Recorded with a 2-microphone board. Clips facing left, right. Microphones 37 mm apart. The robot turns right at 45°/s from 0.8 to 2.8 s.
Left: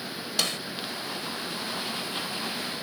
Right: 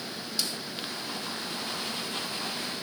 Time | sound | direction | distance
0.4 | a snare drum | 60° left (ahead or behind) | ?